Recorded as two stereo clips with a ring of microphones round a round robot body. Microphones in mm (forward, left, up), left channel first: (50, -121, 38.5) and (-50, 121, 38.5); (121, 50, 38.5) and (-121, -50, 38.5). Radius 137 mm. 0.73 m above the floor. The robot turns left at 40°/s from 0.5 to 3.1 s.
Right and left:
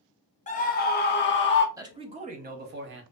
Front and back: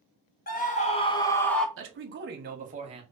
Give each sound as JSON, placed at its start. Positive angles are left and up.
{"t": 0.5, "sound": "a scream", "azimuth_deg": -20, "distance_m": 0.7}
{"t": 1.8, "sound": "a man speaking", "azimuth_deg": -175, "distance_m": 0.7}